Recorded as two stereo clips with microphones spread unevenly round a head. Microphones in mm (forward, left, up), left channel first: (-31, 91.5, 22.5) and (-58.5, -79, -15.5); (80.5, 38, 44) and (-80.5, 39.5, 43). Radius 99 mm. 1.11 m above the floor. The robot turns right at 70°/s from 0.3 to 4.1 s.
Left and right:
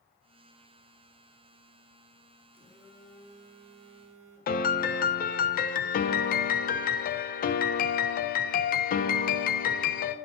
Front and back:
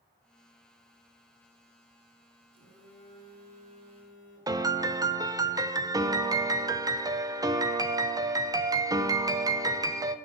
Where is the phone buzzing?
155° left, 3 m; by 4.7 s 95° right, 3 m.